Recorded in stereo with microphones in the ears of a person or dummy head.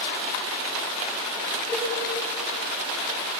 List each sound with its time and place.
1.7 s a cowbell: 10° left (ahead or behind), 4 m